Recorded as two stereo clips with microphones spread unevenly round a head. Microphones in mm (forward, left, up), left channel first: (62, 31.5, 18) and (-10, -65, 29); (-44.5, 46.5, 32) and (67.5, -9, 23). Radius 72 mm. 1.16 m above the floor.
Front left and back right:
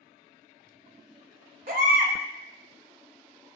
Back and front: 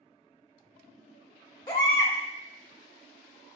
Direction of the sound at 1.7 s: 150° right.